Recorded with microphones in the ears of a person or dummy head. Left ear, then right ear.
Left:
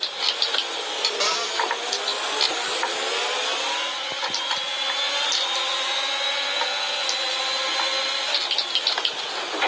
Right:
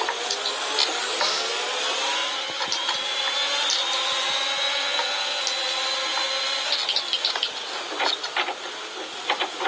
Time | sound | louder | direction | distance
1.2 | a cupboard door | right 1 dB | 40° left (ahead or behind) | 2.5 m